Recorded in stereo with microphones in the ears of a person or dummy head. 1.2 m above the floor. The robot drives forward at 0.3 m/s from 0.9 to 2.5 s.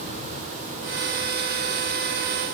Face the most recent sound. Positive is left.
No sound to turn to.